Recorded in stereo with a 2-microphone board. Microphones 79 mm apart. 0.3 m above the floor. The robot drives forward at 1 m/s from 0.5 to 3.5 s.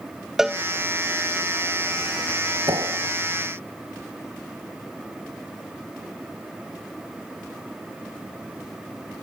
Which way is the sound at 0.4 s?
5° right (ahead or behind).